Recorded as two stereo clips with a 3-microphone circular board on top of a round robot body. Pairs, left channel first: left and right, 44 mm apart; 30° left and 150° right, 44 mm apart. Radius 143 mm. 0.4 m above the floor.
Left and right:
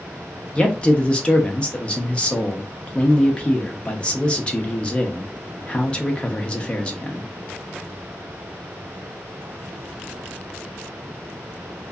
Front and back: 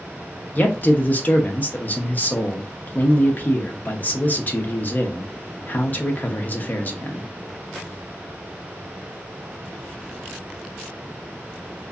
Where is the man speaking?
40° left, 1.0 m.